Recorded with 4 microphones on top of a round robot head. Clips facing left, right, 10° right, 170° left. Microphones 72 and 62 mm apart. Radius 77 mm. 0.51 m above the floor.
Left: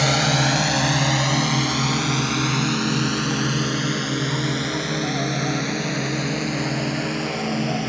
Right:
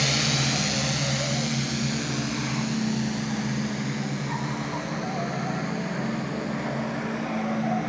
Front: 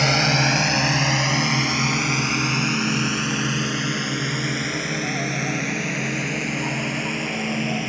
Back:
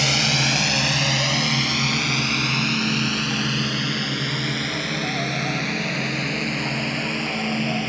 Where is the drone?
40° left; by 7.9 s 70° left.